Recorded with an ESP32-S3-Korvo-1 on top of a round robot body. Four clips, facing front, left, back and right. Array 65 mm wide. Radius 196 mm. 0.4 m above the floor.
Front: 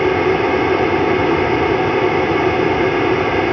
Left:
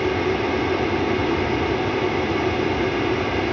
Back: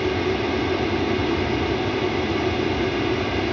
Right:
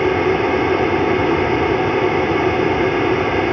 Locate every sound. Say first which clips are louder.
0.0 s an aircraft: right 5 dB, front 8 dB; 30° right